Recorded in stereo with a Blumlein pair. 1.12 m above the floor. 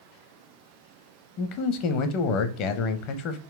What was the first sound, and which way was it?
A man speaking, 40° left.